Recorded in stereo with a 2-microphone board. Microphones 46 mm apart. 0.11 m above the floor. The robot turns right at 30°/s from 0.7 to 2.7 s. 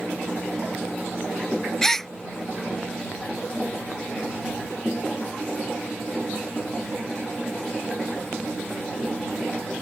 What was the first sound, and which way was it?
A gasp, 10° left (ahead or behind).